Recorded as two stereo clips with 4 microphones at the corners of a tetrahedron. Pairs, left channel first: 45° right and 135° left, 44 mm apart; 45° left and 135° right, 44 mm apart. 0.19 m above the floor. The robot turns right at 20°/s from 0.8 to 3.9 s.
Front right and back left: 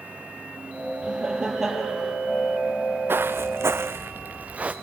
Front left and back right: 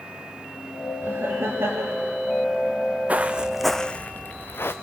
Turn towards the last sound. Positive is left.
turn(degrees=70)